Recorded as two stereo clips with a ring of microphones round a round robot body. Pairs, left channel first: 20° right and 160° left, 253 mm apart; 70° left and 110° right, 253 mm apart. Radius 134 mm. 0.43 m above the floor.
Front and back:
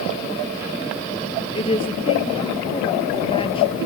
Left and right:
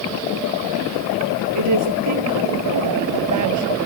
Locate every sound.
1.6 s a woman speaking: 95° right